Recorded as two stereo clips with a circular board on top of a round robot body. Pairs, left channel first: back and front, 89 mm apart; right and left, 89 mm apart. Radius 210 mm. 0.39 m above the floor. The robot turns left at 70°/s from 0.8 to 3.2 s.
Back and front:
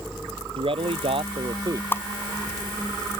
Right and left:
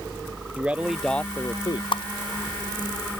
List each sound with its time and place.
0.6 s a man speaking: 15° left; by 1.8 s 55° right
1.9 s a whoosh: 110° right; by 2.0 s 120° right